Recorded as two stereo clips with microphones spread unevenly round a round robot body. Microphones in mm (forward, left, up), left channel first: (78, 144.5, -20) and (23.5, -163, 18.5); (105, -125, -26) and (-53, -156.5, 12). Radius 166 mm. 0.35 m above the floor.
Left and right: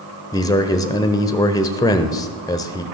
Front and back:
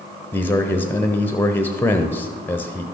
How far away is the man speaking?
About 1.1 m.